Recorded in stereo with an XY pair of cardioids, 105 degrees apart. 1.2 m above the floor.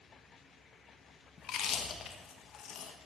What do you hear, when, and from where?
1.4 s chewing: 65° left, 0.9 m